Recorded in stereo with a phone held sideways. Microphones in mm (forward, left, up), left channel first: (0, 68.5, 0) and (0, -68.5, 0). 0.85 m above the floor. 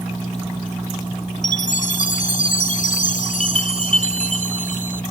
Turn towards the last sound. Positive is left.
turn(degrees=80)